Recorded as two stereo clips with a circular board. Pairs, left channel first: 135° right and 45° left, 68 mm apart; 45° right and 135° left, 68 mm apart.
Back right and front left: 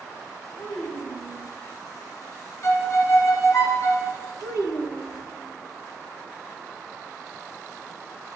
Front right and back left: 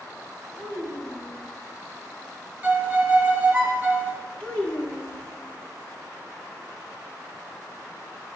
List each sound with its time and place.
0.6 s a child speaking: 85° right, 1.8 m
2.6 s a violin: 165° right, 1.2 m
4.4 s a child speaking: 115° right, 1.6 m